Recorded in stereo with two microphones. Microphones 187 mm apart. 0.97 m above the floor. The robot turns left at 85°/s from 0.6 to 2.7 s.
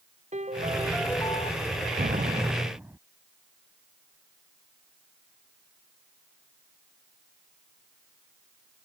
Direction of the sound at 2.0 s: 110° right.